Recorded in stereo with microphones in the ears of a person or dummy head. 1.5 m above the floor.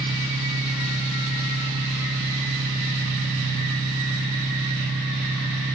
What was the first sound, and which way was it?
An engine running, 45° right (ahead or behind).